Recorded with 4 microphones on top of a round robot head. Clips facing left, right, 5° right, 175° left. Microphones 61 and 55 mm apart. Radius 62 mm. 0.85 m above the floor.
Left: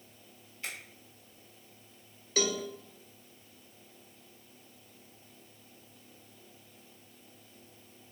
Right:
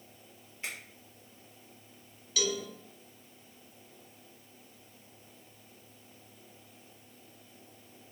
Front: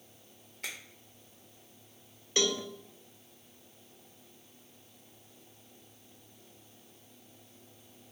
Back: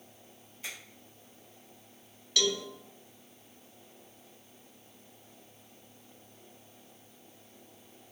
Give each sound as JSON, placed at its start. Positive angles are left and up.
{"t": 0.6, "sound": "a finger snap", "azimuth_deg": -20, "distance_m": 1.4}
{"t": 2.4, "sound": "a cowbell", "azimuth_deg": 50, "distance_m": 0.5}